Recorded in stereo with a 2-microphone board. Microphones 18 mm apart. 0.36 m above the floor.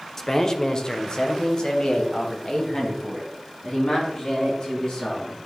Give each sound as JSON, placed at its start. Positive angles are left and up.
{"t": 0.2, "sound": "a man speaking", "side_deg": 25, "distance_m": 0.8}